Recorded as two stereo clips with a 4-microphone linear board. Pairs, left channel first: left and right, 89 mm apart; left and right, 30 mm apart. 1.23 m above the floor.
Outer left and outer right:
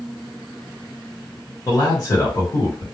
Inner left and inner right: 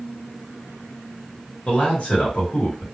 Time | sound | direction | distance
1.7 | a man speaking | 40° left (ahead or behind) | 1.4 m